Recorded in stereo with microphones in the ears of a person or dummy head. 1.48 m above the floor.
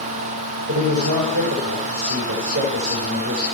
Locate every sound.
0.7 s a man speaking: 50° right (ahead or behind), 6 m